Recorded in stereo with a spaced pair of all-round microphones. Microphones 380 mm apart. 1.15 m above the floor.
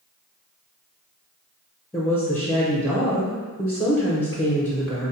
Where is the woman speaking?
5° left (ahead or behind), 0.5 m.